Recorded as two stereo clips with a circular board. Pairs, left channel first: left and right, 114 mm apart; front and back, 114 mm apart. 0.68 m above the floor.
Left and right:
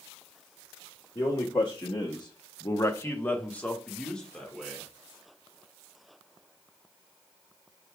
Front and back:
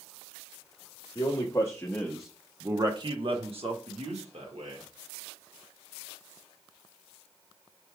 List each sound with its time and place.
1.1 s a man speaking: 40° left, 1.0 m; by 4.8 s 175° left, 1.8 m